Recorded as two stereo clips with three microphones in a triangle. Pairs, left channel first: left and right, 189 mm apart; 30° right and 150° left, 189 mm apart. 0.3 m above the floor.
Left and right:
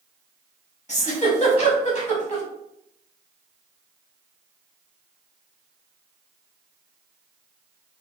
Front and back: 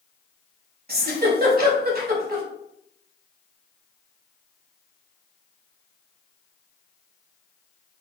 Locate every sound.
0.9 s a giggle: 135° left, 0.8 m